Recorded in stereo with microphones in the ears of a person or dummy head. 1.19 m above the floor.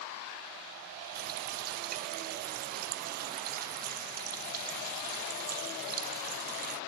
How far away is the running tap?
About 0.6 m.